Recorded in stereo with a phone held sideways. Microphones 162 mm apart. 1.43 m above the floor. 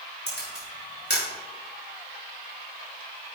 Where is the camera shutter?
80° left, 3.5 m.